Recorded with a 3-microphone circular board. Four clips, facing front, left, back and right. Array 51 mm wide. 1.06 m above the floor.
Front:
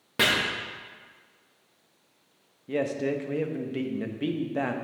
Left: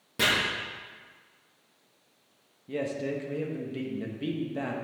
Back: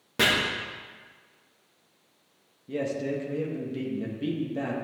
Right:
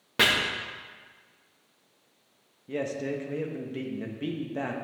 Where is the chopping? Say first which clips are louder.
Right 4 dB, even; 65° right, 1.5 m.